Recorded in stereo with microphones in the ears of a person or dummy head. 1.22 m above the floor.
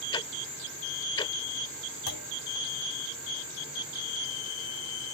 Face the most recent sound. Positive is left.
turn(degrees=80)